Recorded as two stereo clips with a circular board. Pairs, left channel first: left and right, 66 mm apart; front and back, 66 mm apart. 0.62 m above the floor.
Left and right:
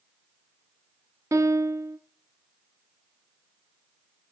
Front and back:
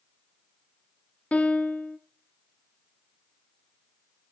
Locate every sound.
1.3 s a piano: 65° right, 0.7 m